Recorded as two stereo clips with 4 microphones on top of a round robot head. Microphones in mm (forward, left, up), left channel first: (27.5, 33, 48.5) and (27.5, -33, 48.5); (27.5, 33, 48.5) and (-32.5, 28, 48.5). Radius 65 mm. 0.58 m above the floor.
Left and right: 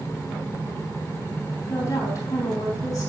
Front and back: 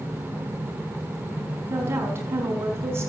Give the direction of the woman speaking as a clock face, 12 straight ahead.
7 o'clock.